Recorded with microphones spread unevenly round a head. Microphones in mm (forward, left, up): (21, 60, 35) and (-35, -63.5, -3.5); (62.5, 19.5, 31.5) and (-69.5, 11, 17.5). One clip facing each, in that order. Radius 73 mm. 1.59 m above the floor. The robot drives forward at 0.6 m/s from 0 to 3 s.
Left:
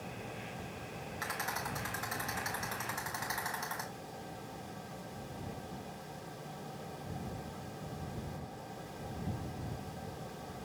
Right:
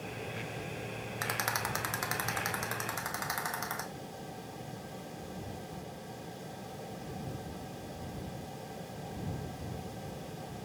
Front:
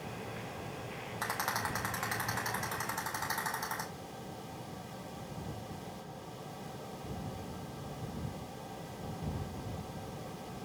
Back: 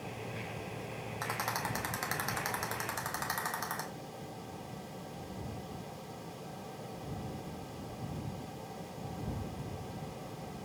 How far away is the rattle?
About 0.6 m.